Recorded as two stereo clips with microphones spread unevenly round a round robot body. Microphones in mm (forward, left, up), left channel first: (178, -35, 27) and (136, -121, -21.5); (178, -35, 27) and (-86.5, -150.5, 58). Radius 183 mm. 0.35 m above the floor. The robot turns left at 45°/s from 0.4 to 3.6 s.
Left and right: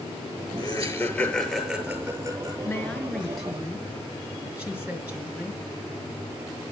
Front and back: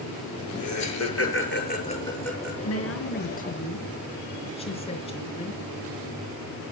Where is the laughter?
20° left, 7.5 m; by 2.5 s 70° right, 7.5 m.